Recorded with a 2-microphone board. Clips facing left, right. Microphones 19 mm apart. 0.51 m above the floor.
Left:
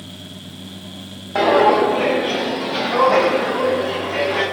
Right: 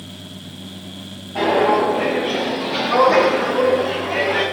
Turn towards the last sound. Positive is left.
turn(degrees=-45)  # may be behind; listen again after turning